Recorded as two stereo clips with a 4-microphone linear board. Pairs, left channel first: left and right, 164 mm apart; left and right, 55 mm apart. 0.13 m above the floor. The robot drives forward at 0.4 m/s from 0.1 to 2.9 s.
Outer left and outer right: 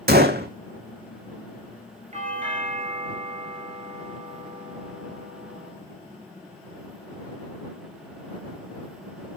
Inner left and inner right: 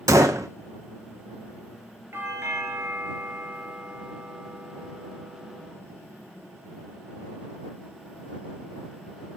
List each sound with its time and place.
0.1 s a gunshot: 80° right, 1.3 m; by 0.5 s 85° right, 1.3 m
2.1 s a doorbell: 45° right (ahead or behind), 3 m; by 5.7 s 40° right (ahead or behind), 3 m